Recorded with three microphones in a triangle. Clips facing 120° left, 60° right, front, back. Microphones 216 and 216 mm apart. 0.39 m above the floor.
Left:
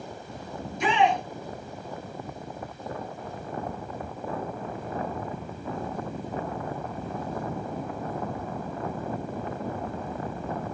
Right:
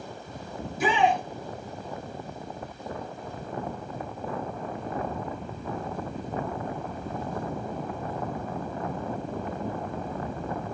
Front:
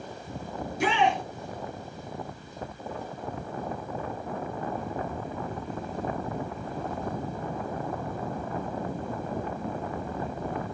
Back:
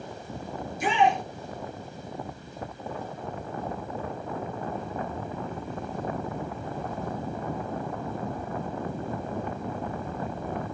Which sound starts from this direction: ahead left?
A shout, at 0.6 s.